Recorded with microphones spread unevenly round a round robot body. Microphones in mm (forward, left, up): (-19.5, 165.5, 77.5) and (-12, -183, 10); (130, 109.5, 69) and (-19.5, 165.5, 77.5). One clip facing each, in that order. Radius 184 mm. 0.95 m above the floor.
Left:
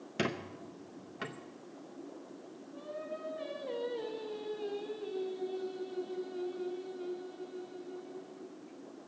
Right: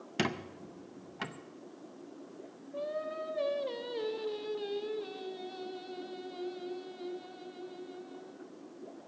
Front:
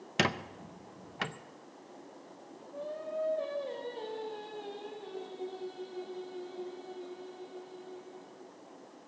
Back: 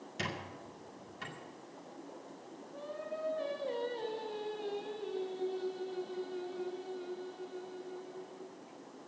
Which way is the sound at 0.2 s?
20° right.